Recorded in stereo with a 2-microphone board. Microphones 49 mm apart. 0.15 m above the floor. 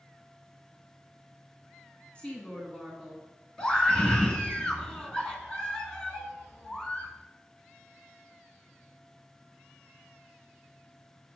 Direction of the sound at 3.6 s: 15° left (ahead or behind).